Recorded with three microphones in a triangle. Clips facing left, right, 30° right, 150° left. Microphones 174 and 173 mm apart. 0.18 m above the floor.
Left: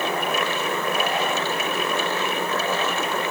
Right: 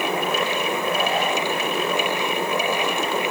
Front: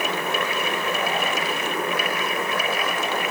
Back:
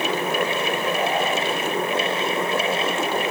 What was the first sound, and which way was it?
Only background noise.